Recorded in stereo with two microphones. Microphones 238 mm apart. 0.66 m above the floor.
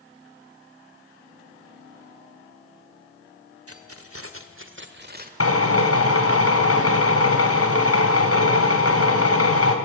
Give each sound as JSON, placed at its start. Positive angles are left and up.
{"t": 3.7, "sound": "keys jangling", "side_deg": -75, "distance_m": 1.9}
{"t": 5.4, "sound": "a drill", "side_deg": 80, "distance_m": 3.0}